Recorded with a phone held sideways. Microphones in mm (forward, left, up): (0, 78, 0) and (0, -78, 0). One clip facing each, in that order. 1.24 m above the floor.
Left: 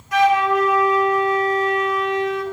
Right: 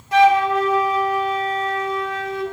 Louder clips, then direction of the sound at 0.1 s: Right 2 dB; 30° right (ahead or behind).